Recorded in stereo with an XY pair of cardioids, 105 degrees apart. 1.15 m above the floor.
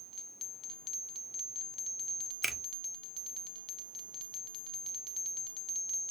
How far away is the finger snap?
About 0.9 m.